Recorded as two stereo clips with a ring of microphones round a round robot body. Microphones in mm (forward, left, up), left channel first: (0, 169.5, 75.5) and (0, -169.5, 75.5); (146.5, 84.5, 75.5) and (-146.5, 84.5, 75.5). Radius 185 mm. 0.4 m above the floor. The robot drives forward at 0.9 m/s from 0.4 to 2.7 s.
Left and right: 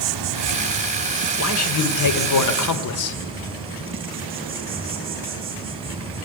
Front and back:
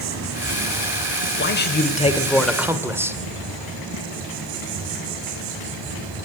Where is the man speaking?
45° left, 1.6 m; by 3.2 s 100° left, 1.3 m.